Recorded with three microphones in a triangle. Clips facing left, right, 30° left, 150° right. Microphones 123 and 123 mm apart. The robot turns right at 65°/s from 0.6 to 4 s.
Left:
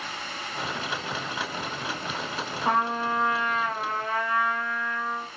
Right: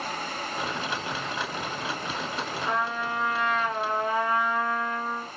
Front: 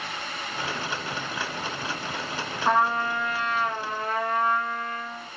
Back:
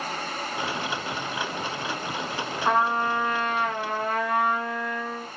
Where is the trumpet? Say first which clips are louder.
Left 5 dB, even; 115° left, 4 m; by 5.3 s 155° right, 4 m.